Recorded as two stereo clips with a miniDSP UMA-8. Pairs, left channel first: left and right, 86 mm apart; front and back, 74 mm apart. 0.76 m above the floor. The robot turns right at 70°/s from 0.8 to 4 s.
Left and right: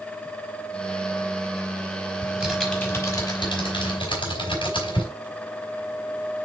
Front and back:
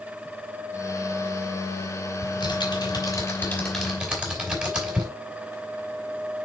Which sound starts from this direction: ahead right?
Typing on a keyboard, at 2.2 s.